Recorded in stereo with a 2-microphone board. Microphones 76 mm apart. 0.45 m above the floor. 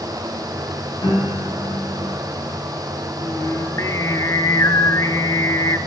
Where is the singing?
40° left (ahead or behind), 0.6 m.